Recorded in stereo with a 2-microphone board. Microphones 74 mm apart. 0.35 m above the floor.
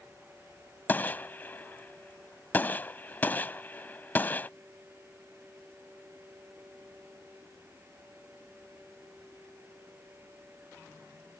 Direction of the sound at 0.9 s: 25° left (ahead or behind).